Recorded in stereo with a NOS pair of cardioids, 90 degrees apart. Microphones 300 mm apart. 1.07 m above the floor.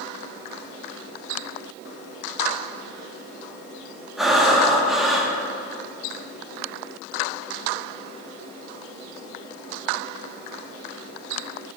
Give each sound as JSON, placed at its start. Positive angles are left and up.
{"t": 4.2, "sound": "breathing", "azimuth_deg": 0, "distance_m": 1.5}